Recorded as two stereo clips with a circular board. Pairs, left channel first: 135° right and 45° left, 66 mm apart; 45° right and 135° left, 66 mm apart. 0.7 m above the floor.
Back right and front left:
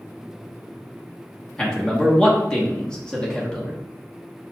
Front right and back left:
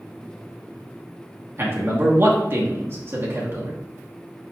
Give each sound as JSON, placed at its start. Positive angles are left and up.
{"t": 1.6, "sound": "a man speaking", "azimuth_deg": 155, "distance_m": 1.0}